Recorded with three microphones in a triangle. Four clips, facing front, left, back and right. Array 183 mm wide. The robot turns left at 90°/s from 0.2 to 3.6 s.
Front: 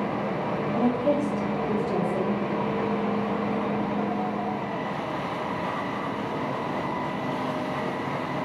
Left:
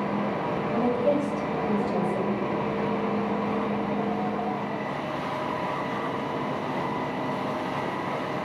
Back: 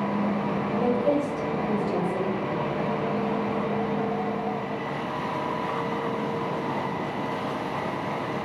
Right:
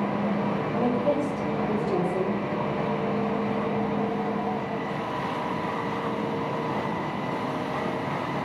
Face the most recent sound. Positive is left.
turn(degrees=145)